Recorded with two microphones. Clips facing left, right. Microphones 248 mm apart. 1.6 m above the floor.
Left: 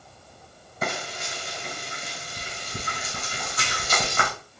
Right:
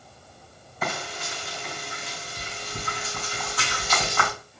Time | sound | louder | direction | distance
0.8 | frying | left 1 dB | 45° left (ahead or behind) | 2.0 m